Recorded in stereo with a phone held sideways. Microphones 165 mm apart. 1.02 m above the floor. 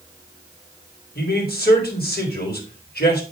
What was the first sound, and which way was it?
A man speaking, 70° left (ahead or behind).